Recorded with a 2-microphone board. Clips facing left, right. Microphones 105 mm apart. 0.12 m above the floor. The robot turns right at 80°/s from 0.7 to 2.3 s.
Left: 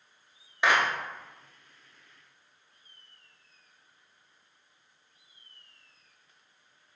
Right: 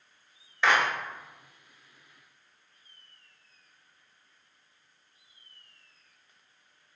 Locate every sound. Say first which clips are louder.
0.6 s a clap: even; 15° left (ahead or behind), 1.2 m; by 0.8 s 25° left (ahead or behind), 1.2 m